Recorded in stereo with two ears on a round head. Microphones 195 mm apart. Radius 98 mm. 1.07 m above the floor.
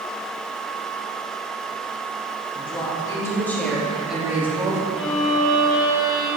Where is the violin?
55° left (ahead or behind), 3 m.